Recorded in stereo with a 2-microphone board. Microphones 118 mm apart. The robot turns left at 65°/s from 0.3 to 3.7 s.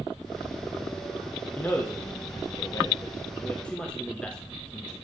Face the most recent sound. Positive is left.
turn(degrees=5)  # may be behind; listen again after turning